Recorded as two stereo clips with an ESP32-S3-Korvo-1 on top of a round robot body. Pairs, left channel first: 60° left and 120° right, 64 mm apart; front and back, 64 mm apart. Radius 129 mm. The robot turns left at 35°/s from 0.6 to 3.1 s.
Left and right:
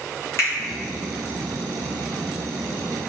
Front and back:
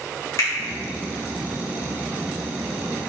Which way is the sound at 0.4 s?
20° left.